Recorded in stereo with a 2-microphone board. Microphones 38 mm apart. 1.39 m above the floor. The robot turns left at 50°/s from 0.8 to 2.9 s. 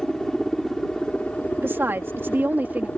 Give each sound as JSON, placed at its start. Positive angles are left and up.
{"t": 0.0, "sound": "a helicopter", "azimuth_deg": 165}
{"t": 1.6, "sound": "a woman speaking", "azimuth_deg": -70}